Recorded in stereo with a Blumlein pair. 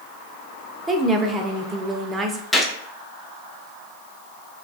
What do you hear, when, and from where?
0.9 s a woman speaking: 15° right, 0.5 m
2.5 s a gunshot: 5° left, 0.6 m